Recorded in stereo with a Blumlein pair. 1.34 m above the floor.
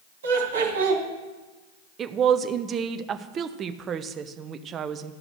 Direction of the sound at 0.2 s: 65° right.